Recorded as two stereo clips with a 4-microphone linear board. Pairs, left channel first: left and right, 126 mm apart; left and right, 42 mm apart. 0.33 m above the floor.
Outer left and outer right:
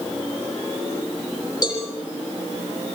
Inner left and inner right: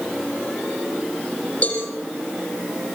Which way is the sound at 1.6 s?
35° left (ahead or behind).